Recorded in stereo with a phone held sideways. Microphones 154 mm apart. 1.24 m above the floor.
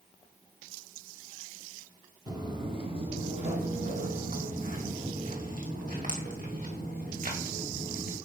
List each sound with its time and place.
2.3 s footsteps: 25° right (ahead or behind), 1.7 m; by 8.2 s 70° right (ahead or behind), 5 m